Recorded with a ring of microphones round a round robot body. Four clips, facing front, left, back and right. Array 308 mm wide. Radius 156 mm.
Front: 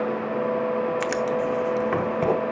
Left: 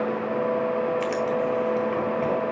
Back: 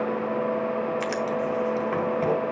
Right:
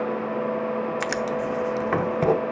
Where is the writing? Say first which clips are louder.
Left 2 dB, front 2 dB; 65° right, 0.8 m.